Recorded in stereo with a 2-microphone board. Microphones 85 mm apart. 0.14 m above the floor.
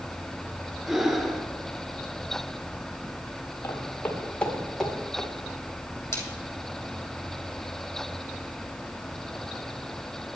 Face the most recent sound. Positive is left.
turn(degrees=35)  # may be behind; listen again after turning